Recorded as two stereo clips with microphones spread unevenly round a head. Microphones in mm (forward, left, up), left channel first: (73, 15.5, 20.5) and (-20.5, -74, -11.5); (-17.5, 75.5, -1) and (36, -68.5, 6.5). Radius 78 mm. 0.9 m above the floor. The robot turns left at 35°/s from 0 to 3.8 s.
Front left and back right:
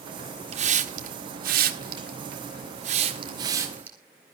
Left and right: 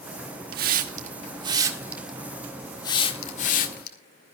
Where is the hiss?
100° right, 1.5 m; by 4.0 s 145° left, 1.5 m.